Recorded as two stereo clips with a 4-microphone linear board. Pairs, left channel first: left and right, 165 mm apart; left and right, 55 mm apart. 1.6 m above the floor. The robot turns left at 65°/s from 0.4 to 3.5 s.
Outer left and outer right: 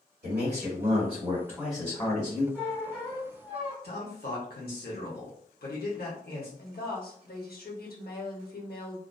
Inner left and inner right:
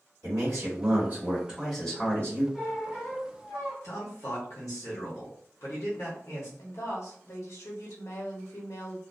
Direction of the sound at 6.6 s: 65° left (ahead or behind).